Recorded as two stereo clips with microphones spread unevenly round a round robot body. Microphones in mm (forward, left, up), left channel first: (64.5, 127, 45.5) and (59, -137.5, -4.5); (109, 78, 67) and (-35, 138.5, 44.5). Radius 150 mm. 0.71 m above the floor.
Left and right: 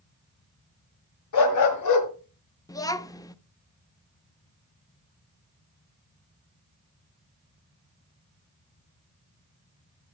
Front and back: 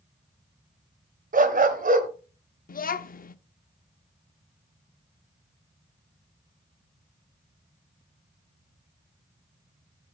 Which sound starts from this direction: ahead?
A child speaking, at 2.7 s.